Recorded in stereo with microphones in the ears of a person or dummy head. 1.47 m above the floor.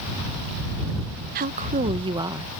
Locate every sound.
1.4 s a woman speaking: 45° right (ahead or behind); by 2.5 s 15° right (ahead or behind)